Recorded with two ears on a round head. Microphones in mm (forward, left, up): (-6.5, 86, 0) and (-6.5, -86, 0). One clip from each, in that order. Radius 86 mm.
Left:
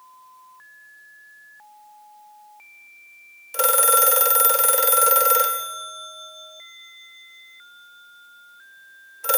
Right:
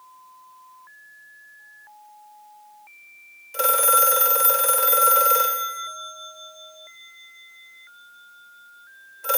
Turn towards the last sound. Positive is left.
turn(degrees=15)  # may be behind; listen again after turning